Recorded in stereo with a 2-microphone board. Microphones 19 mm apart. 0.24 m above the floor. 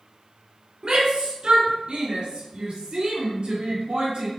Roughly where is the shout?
Right.